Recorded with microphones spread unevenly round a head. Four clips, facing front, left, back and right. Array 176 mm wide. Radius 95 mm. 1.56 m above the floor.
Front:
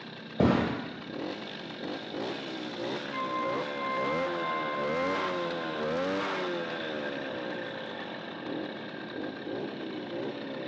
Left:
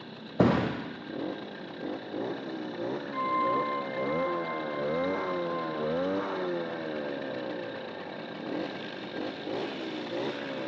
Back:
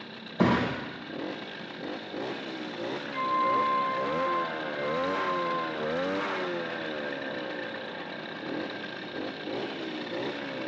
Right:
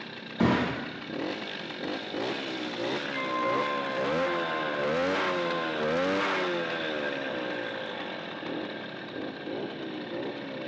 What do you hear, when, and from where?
0.4 s a thud: 75° left, 2.5 m
3.1 s a flute: 25° left, 6.5 m